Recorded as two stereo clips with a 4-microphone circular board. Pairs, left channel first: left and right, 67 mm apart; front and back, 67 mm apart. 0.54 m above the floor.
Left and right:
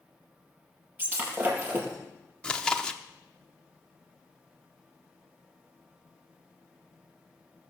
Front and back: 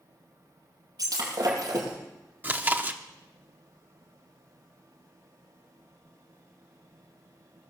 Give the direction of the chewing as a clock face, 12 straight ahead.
7 o'clock.